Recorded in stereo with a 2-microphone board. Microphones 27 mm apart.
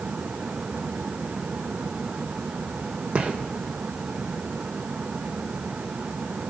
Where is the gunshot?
60° right (ahead or behind), 3.5 m.